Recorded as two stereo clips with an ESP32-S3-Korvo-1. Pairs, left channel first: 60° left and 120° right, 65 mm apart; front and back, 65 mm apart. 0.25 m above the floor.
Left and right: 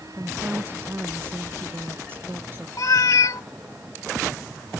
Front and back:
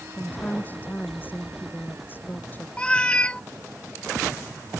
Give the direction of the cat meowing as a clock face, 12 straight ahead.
10 o'clock.